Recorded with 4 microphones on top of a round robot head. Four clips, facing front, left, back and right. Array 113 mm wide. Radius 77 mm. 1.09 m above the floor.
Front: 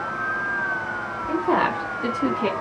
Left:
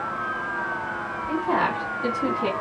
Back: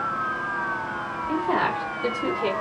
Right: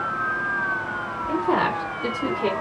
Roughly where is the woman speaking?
Ahead.